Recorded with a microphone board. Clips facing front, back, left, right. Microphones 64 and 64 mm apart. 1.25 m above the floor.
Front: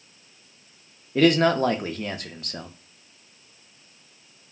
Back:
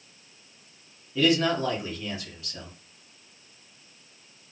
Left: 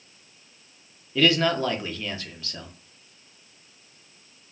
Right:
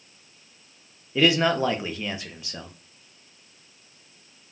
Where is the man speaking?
20° right, 0.5 m.